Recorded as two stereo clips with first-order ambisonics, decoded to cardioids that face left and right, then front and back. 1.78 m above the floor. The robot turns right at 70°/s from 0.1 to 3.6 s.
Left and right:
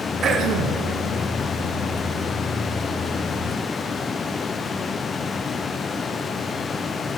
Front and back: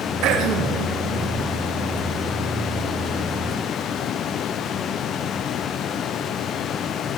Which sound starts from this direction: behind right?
Throat clearing, at 0.2 s.